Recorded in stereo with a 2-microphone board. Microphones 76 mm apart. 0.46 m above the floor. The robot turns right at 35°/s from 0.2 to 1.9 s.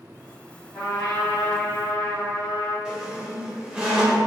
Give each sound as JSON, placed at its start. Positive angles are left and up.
{"t": 0.7, "sound": "a trumpet", "azimuth_deg": 160, "distance_m": 1.9}
{"t": 2.9, "sound": "a squeak", "side_deg": -10, "distance_m": 0.9}